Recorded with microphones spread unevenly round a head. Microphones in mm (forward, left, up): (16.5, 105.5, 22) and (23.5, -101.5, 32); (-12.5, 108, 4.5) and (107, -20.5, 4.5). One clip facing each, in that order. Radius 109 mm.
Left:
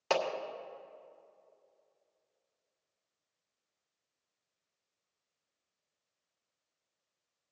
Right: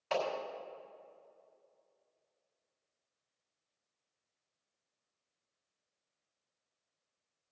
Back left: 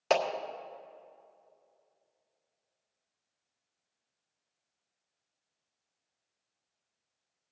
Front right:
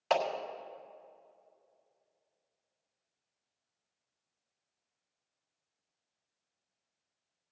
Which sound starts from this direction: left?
A clap, at 0.1 s.